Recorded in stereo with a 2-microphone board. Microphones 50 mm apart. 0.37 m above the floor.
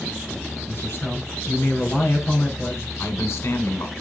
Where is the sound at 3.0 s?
65° left (ahead or behind), 3.5 m.